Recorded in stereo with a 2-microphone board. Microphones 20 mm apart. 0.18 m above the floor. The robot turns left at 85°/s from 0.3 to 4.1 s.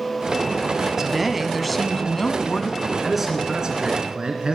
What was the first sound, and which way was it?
A woman speaking, 25° right (ahead or behind).